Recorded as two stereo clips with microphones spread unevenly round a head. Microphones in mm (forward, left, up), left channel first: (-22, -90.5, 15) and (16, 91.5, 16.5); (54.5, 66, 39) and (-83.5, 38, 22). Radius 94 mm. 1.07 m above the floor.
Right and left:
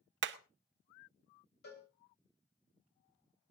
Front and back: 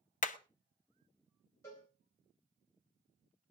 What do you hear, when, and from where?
0.2 s hammering: 45° left, 0.9 m
1.6 s a cowbell: 65° right, 3.5 m